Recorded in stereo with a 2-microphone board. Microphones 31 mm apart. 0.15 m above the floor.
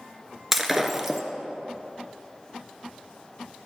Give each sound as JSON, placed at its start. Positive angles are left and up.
{"t": 0.5, "sound": "breaking glass", "side_deg": -10, "distance_m": 0.8}